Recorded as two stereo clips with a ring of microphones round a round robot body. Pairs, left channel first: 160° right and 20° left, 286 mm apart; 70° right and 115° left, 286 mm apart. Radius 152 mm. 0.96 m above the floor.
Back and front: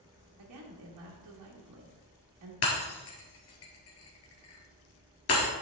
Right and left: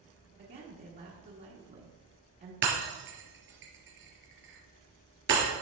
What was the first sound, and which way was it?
A woman speaking, 55° left.